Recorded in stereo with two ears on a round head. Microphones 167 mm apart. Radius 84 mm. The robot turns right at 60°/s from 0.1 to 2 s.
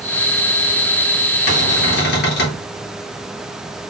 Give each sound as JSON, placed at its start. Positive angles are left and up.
{"t": 1.5, "sound": "a cupboard door", "azimuth_deg": 70, "distance_m": 1.5}